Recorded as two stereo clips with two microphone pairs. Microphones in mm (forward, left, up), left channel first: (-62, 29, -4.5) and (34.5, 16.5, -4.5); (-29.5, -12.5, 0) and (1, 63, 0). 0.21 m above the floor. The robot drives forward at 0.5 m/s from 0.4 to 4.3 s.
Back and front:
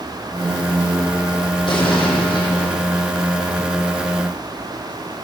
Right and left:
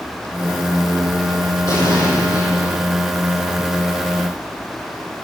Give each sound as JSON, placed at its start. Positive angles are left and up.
{"t": 1.7, "sound": "an explosion", "azimuth_deg": -155, "distance_m": 9.0}